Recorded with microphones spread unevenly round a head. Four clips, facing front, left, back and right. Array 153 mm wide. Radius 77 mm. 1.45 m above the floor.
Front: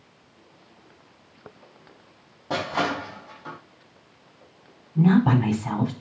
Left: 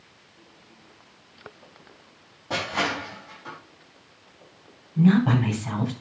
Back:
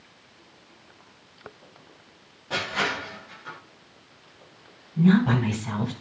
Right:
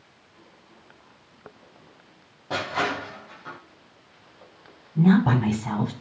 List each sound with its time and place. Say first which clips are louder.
2.5 s crushing: right 1 dB, front 3 dB; straight ahead, 4.5 m
5.0 s a woman speaking: even, front 1 dB; 30° right, 4.5 m